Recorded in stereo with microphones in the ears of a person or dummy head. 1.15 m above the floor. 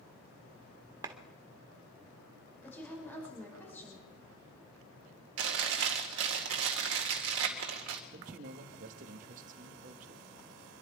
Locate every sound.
1.0 s a clap: 20° right (ahead or behind), 1.3 m
2.6 s a woman speaking: 10° left (ahead or behind), 6 m
5.4 s chewing: 65° right (ahead or behind), 1.9 m
8.1 s a man speaking: 50° right (ahead or behind), 1.4 m